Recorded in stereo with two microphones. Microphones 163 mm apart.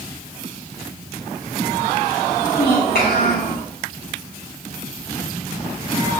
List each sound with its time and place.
2.3 s a child speaking: 80° left, 8 m; by 3.6 s 85° left, 8 m